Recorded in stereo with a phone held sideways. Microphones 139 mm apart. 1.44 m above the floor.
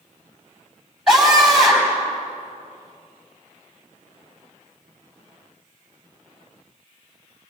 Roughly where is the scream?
Centre.